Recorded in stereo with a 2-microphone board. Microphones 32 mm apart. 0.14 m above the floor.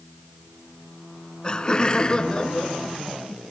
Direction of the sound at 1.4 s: 30° left (ahead or behind).